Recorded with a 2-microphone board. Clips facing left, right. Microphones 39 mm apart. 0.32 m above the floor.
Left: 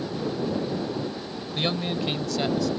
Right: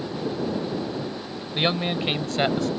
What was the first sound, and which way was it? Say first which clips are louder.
A man speaking: right 3 dB; 30° right (ahead or behind).